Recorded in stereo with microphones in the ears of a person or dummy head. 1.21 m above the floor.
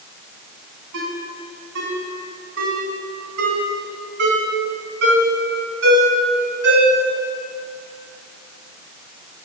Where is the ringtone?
70° right (ahead or behind), 4 m.